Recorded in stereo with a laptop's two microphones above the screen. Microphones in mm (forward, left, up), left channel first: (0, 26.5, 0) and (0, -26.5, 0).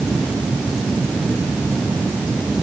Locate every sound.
Only background noise.